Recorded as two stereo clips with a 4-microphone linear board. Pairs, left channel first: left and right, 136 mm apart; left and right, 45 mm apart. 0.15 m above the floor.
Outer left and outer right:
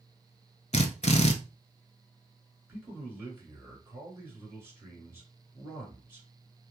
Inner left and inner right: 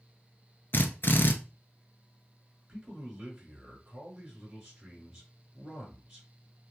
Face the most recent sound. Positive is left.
turn(degrees=-20)  # may be behind; listen again after turning